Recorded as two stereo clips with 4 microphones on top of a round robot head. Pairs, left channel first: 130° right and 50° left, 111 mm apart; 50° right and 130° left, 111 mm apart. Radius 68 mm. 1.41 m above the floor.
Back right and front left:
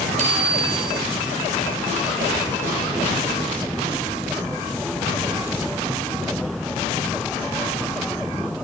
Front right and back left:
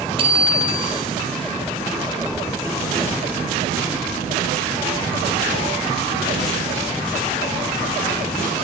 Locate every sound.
0.2 s a bicycle bell: 85° left, 5.5 m